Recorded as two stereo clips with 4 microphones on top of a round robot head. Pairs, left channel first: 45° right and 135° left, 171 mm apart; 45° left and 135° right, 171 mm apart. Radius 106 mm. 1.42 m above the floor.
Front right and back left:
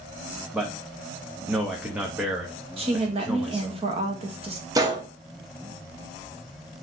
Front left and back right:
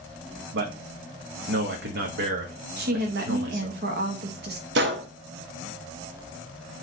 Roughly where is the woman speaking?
Behind.